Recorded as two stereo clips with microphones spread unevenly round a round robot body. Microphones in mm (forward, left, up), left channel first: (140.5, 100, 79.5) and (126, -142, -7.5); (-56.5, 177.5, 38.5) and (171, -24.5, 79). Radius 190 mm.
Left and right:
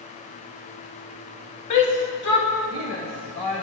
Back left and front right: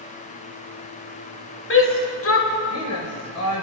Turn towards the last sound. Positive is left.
turn(degrees=155)